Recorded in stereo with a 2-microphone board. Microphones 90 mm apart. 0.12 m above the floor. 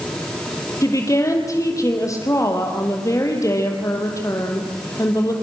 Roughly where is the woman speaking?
Left.